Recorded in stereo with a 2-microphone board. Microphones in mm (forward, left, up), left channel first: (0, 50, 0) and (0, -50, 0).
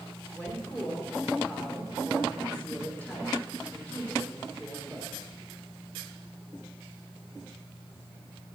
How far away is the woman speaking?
About 4.5 m.